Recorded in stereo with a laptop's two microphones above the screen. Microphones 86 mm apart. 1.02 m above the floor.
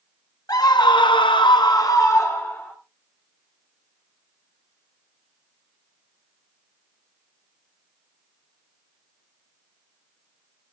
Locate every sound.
0.5 s a scream: 50° left (ahead or behind), 1.5 m; by 2.7 s 25° left (ahead or behind), 2.5 m